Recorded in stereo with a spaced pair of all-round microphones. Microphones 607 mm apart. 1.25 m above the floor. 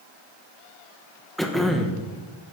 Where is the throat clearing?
Centre (ahead or behind), 1.4 m.